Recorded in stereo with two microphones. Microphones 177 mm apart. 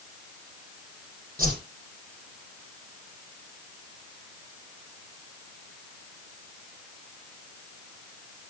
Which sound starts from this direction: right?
A whoosh, at 1.4 s.